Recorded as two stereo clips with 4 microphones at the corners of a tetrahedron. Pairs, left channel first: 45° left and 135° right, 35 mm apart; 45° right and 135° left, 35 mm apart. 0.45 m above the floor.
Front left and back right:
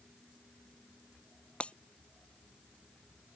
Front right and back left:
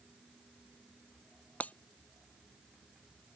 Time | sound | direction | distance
1.6 | breaking glass | 5° right | ?